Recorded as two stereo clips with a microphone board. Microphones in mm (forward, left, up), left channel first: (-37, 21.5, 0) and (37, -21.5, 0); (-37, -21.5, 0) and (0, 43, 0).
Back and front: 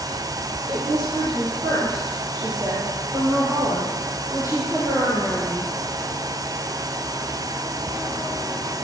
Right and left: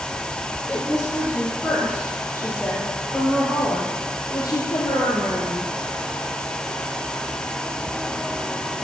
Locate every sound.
0.7 s a woman speaking: 45° right, 5.5 m; by 5.7 s 95° right, 3.5 m